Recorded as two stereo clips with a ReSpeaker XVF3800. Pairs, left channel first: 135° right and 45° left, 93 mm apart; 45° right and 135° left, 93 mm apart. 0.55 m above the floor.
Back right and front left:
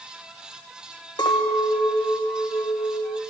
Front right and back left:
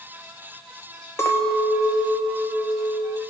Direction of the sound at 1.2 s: 105° right.